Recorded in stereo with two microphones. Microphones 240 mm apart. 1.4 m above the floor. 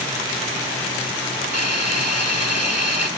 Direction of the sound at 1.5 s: 75° left (ahead or behind).